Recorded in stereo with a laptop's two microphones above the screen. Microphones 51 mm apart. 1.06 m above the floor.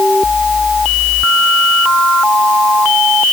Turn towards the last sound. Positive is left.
No sound to turn to.